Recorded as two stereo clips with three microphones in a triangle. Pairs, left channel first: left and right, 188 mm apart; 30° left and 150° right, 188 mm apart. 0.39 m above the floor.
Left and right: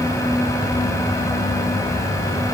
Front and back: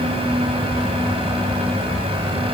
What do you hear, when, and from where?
Only background noise.